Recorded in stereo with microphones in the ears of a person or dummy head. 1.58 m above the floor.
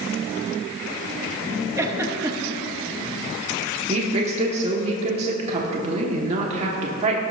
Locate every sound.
1.8 s a giggle: 15° right (ahead or behind), 0.9 m
3.9 s a woman speaking: 35° right (ahead or behind), 1.5 m